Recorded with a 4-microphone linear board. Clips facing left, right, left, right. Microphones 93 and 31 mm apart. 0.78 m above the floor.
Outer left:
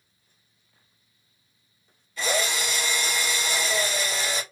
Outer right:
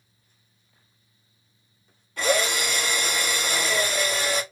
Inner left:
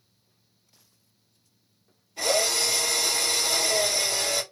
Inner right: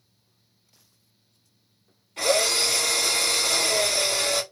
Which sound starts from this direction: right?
A drill, at 2.2 s.